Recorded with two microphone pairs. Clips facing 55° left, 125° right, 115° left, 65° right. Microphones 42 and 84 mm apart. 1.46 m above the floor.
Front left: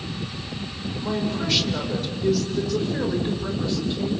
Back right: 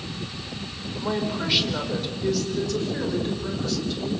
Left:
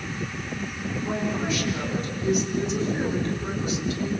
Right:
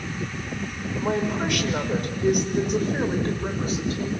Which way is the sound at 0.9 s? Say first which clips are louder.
Even, right 3 dB; 55° right.